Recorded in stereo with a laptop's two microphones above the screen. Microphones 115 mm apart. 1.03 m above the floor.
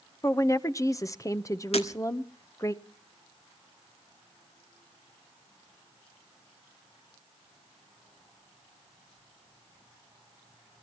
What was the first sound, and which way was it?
A woman speaking, 30° left (ahead or behind).